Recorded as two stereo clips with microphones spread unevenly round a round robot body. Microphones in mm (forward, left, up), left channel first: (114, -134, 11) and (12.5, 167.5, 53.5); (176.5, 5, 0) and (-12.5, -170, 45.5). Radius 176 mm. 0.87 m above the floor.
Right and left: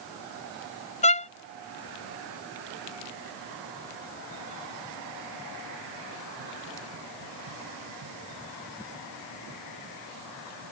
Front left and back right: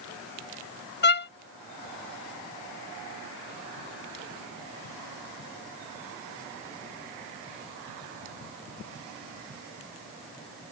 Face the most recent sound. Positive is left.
turn(degrees=-5)